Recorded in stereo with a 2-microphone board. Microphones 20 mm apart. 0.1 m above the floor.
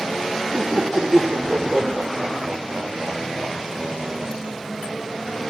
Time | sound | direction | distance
0.5 | laughter | 55° right (ahead or behind) | 6.5 m